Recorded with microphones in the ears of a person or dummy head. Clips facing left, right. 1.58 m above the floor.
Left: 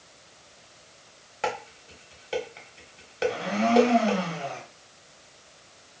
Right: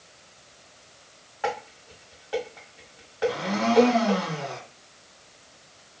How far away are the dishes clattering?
About 1.0 m.